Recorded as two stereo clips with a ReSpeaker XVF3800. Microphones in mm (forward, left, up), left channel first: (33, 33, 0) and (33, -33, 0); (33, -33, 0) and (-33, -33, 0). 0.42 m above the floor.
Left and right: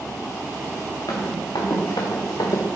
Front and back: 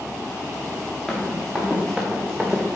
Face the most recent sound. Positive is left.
turn(degrees=95)